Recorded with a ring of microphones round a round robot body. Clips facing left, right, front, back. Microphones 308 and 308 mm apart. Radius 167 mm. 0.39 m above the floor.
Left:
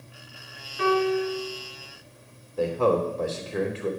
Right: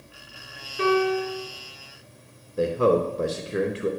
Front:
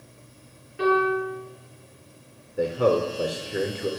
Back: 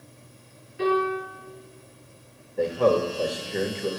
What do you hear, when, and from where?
0.8 s a piano: 35° right, 4 m
2.6 s a man speaking: 70° right, 0.8 m